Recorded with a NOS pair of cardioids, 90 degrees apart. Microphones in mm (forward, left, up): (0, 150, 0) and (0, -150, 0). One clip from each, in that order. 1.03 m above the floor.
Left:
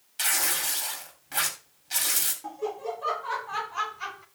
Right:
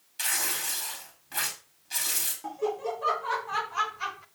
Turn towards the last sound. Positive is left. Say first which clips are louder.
# right 2 dB
turn(degrees=-10)